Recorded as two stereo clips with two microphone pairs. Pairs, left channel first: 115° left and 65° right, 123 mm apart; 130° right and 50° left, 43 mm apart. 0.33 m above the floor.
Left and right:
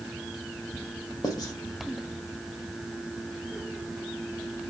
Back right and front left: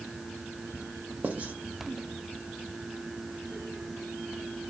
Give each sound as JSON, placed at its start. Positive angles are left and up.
{"t": 1.2, "sound": "writing", "azimuth_deg": 75, "distance_m": 0.5}